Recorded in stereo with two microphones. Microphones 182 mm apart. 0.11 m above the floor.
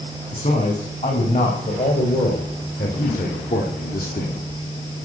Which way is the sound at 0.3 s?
40° left (ahead or behind).